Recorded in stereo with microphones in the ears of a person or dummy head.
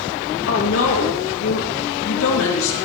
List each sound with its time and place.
0.5 s a woman speaking: 65° left (ahead or behind), 3 m